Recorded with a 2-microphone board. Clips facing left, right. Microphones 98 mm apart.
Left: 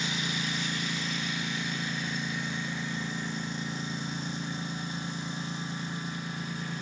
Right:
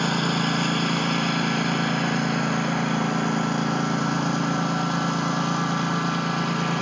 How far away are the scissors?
I don't hear scissors.